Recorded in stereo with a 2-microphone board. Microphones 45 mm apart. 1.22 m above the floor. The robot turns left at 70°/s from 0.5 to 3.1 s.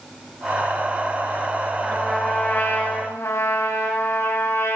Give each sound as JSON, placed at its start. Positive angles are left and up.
{"t": 1.8, "sound": "a trumpet", "azimuth_deg": -170, "distance_m": 9.0}